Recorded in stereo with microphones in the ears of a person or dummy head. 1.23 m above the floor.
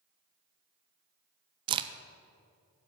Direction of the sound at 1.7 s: 25° right (ahead or behind).